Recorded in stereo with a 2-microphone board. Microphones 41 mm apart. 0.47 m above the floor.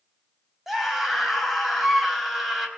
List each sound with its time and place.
0.7 s a scream: 5° right (ahead or behind), 3 m